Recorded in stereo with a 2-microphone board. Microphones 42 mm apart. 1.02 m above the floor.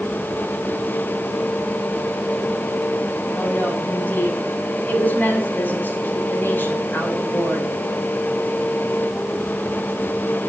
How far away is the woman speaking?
About 6.5 m.